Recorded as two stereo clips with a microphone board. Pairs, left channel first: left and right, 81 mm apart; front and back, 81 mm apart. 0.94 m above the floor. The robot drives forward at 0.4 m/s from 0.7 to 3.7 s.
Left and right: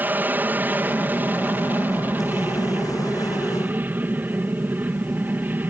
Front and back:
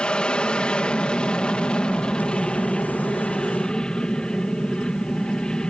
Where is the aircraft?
60° right; by 5.7 s 65° right.